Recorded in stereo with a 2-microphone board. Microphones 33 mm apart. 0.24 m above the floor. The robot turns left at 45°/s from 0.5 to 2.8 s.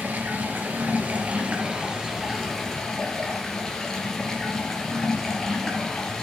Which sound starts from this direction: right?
Running water, at 0.0 s.